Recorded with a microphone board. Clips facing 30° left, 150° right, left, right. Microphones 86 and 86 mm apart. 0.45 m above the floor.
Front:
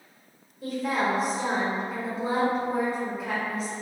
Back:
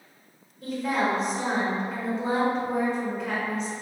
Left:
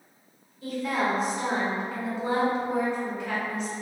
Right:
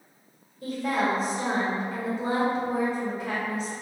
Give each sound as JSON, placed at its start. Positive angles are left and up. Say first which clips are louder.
{"t": 0.6, "sound": "a woman speaking", "louder": "back 1 dB, right 1 dB", "azimuth_deg": -55, "distance_m": 1.4}